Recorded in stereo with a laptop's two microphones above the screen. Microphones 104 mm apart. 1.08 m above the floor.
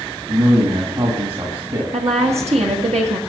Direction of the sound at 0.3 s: 50° right (ahead or behind).